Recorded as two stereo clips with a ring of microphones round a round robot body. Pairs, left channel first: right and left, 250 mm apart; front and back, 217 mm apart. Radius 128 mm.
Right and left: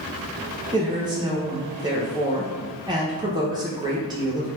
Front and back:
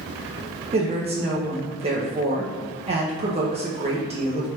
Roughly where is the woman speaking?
Behind left.